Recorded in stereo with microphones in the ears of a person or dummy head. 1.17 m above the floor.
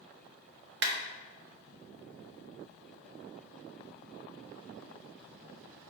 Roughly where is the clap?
Right.